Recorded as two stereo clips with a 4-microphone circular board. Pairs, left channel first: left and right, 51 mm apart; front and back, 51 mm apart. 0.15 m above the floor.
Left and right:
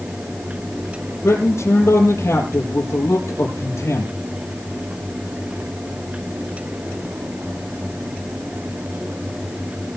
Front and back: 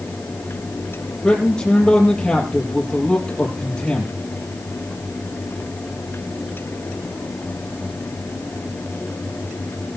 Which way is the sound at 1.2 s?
75° left.